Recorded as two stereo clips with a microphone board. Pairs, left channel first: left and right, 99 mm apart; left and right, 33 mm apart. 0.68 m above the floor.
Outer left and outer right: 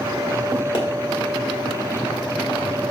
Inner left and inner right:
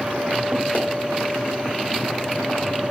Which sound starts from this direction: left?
A pop, at 0.7 s.